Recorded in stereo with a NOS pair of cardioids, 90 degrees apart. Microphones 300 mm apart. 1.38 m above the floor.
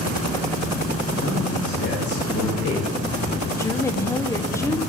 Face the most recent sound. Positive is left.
turn(degrees=10)